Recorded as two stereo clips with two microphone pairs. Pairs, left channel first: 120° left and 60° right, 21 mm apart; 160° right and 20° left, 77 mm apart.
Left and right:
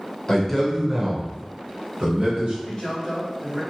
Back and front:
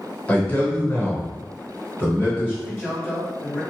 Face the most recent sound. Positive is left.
turn(degrees=155)